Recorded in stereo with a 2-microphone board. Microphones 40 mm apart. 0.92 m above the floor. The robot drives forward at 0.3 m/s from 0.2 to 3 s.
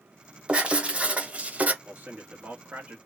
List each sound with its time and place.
0.5 s writing: 25° right (ahead or behind), 1.1 m; by 1.8 s 35° right (ahead or behind), 0.8 m
1.9 s a man speaking: 45° right (ahead or behind), 1.7 m; by 3.0 s 40° right (ahead or behind), 1.9 m